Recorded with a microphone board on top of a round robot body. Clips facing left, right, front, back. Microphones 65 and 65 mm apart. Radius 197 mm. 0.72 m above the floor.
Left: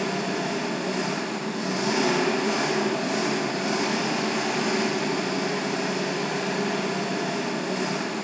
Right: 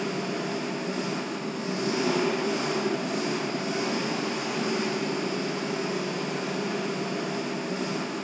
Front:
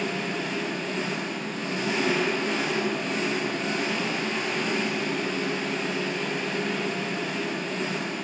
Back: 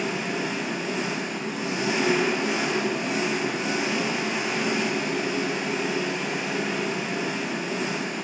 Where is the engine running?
95° left, 6.5 m.